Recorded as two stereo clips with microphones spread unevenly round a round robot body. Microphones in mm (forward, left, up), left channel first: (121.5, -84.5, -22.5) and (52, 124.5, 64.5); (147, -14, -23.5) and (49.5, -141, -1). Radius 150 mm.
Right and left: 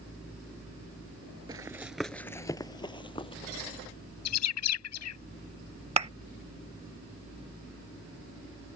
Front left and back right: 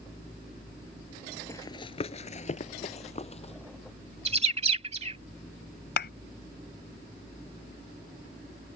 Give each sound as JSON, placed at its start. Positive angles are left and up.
{"t": 1.5, "sound": "running footsteps", "azimuth_deg": 130}
{"t": 4.2, "sound": "a bird", "azimuth_deg": -85}
{"t": 6.0, "sound": "a thud", "azimuth_deg": 50}